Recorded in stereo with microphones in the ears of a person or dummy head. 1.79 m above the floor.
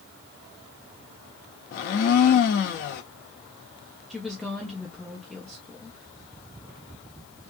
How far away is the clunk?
No clunk in this recording.